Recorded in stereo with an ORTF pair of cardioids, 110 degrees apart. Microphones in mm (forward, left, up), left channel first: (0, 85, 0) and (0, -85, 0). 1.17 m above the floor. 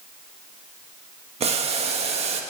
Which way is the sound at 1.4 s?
40° right.